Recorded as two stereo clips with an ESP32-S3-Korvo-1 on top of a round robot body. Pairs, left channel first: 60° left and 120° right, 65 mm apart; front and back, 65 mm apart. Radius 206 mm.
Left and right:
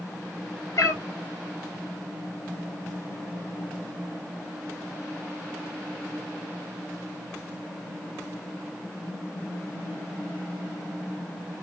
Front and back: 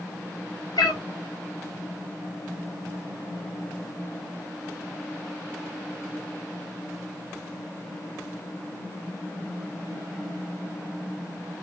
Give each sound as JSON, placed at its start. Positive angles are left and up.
{"t": 0.8, "sound": "a cat meowing", "azimuth_deg": 10, "distance_m": 1.2}